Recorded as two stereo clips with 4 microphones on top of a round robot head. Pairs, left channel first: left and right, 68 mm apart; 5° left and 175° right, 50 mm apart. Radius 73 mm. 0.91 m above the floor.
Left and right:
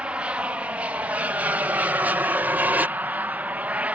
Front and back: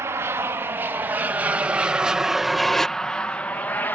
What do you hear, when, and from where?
0.0 s an aircraft: 160° right; by 4.0 s 30° right